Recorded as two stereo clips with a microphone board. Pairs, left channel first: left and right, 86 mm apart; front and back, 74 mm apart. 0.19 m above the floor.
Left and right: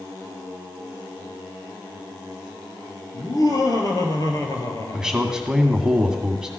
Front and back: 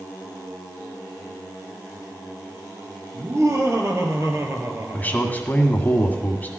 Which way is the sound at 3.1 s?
135° left.